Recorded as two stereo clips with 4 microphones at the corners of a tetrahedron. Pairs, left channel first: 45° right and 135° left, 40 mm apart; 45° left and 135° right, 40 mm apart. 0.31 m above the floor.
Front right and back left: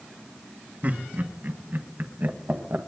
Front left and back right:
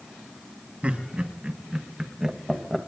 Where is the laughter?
170° left, 2.5 m; by 2.8 s 130° left, 1.5 m.